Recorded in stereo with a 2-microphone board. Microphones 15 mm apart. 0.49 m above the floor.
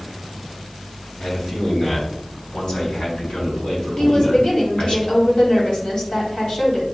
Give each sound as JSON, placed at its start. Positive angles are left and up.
{"t": 1.2, "sound": "a man speaking", "side_deg": 60, "distance_m": 2.5}
{"t": 4.0, "sound": "a woman speaking", "side_deg": 65, "distance_m": 3.5}